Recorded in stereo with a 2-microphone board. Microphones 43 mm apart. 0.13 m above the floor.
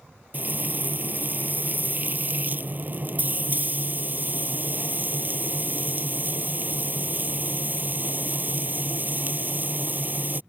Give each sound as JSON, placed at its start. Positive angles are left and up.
{"t": 0.3, "sound": "frying", "side_deg": -40}